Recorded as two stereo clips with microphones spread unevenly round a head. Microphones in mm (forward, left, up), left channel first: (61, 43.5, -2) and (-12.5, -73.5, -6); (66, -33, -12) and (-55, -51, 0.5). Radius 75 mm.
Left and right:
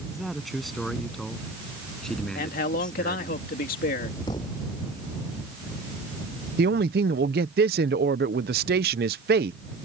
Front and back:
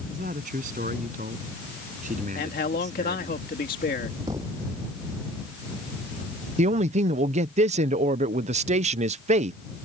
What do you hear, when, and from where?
0.1 s a man speaking: 150° left; by 3.4 s 140° left
2.4 s a man speaking: 40° left
4.3 s a thud: 120° left
6.6 s a man speaking: 145° right